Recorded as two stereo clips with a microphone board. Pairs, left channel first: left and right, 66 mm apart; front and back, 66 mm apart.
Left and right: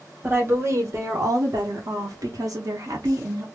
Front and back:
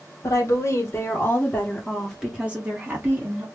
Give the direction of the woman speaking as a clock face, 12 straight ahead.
1 o'clock.